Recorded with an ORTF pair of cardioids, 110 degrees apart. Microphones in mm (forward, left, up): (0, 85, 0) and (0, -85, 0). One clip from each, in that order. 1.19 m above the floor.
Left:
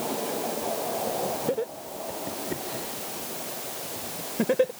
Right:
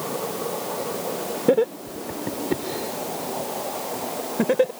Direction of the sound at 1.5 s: 55° right.